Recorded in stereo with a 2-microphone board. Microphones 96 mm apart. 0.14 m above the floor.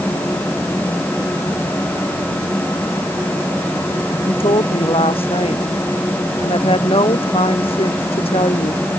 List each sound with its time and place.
4.3 s a woman speaking: 70° left (ahead or behind)